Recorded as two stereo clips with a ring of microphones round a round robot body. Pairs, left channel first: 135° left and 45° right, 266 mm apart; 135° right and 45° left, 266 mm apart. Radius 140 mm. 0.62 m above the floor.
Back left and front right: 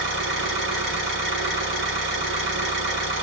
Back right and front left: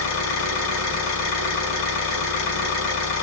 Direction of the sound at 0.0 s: 95° right.